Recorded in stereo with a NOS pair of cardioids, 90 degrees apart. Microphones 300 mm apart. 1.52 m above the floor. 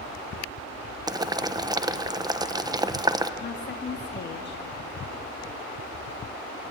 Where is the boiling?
15° right, 1.2 m.